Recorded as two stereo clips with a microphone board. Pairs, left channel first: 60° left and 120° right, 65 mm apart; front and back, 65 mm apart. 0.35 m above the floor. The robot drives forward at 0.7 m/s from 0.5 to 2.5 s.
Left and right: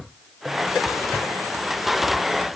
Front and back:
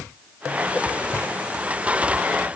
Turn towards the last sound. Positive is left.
No sound to turn to.